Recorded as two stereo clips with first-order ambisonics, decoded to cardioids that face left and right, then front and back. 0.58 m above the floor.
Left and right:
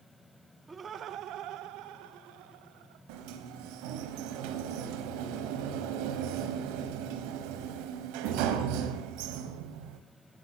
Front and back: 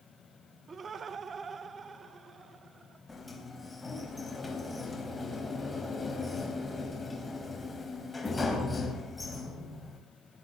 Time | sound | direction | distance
0.7 | laughter | 145° right | 1.0 m
3.1 | a sliding door | 80° right | 3.5 m